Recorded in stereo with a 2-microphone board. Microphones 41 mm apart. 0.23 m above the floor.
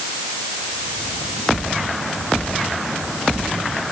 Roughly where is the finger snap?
No finger snap in this recording.